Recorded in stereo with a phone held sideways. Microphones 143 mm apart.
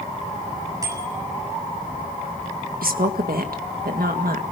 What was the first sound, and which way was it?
A bicycle bell, 25° right (ahead or behind).